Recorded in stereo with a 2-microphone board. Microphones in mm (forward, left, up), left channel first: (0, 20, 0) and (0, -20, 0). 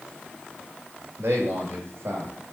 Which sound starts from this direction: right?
A man speaking, at 1.2 s.